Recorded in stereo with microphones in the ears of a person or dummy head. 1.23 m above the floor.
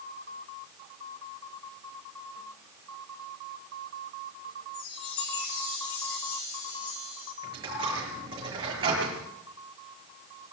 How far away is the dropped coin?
About 7 m.